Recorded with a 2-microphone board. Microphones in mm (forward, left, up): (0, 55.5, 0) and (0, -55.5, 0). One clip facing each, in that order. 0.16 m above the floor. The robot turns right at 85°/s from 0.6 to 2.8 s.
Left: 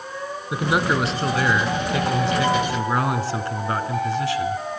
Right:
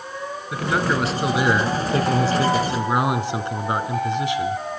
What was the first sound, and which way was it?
A man speaking, 140° left.